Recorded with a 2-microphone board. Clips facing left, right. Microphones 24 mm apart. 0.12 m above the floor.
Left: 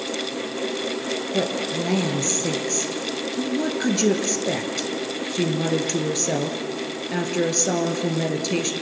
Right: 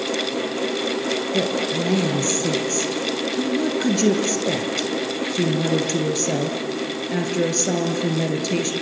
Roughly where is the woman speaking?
Centre.